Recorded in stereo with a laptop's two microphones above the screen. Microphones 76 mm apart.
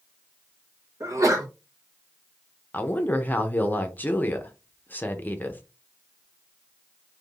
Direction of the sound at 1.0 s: 45° right (ahead or behind).